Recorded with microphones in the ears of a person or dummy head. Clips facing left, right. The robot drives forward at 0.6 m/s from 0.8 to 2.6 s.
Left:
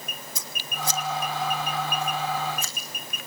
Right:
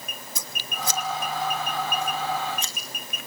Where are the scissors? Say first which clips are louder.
Even; 60° right (ahead or behind), 1.0 m; by 2.7 s 30° right (ahead or behind), 1.6 m.